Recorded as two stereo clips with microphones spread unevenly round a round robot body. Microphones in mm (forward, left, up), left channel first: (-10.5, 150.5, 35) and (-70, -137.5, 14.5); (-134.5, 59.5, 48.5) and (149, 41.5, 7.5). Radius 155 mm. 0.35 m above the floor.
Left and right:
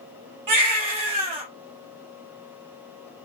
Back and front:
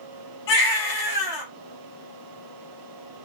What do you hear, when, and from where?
0.5 s a baby crying: 130° right, 3 m